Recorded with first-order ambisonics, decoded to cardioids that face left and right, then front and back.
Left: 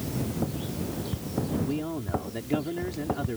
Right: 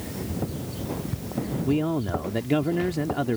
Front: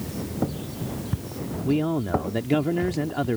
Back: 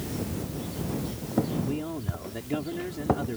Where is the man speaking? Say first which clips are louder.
Right 6 dB, front 9 dB; 40° right.